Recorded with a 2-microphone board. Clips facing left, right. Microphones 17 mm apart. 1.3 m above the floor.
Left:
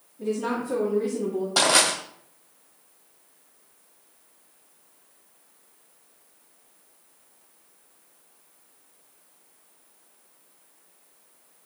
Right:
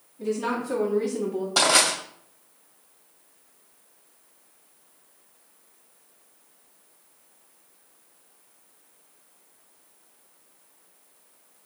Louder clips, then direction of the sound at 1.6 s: Even; 5° left (ahead or behind).